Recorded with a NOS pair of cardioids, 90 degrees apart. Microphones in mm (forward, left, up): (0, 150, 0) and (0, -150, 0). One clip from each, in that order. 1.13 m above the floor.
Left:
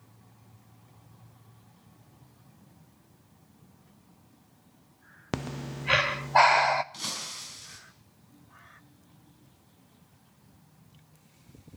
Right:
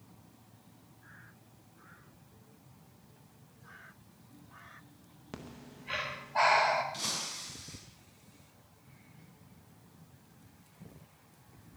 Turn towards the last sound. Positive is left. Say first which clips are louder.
# left 1 dB
turn(degrees=40)